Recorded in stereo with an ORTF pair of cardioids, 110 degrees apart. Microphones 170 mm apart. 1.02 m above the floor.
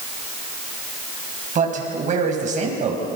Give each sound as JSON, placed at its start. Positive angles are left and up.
{"t": 1.6, "sound": "a man speaking", "azimuth_deg": -45, "distance_m": 7.5}